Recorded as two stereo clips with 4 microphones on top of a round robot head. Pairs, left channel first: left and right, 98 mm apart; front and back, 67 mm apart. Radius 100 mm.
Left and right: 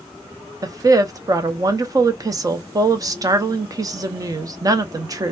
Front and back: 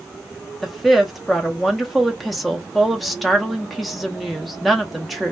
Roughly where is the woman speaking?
Right.